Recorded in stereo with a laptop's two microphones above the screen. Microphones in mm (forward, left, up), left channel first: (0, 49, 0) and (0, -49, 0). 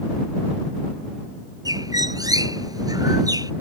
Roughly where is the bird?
Right.